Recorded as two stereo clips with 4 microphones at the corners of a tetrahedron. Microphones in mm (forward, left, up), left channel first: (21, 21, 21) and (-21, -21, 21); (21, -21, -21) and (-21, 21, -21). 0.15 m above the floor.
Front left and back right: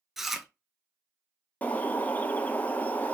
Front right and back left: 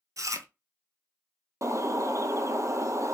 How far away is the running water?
No running water in this recording.